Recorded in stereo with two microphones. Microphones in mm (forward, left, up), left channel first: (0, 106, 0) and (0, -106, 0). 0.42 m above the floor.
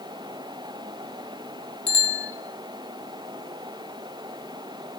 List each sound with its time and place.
1.9 s a bicycle bell: 50° left (ahead or behind), 2 m